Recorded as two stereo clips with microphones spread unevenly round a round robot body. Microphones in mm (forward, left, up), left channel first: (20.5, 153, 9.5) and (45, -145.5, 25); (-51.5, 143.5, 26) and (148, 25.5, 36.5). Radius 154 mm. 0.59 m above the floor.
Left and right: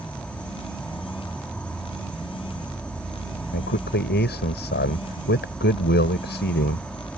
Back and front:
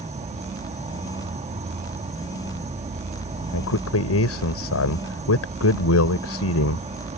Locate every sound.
0.0 s an insect: 15° left
3.5 s a man speaking: 150° left